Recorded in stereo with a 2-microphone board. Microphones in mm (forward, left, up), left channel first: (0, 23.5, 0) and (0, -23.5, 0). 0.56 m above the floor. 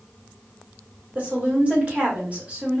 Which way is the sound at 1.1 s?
35° right (ahead or behind).